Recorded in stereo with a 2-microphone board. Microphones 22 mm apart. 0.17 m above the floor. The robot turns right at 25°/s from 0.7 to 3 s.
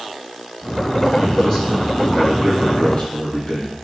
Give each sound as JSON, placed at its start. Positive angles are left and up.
{"t": 1.2, "sound": "a man speaking", "azimuth_deg": 30, "distance_m": 4.5}